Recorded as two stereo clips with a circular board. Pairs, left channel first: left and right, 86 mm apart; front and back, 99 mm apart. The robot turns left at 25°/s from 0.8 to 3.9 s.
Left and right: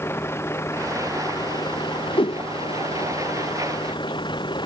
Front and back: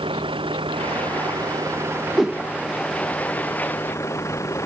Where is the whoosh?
95° left; by 2.4 s 90° left.